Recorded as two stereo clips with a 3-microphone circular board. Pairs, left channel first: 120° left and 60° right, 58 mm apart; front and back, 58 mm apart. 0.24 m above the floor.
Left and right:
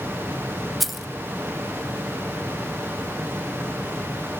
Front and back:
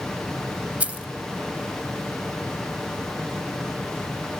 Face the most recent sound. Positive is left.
turn(degrees=-145)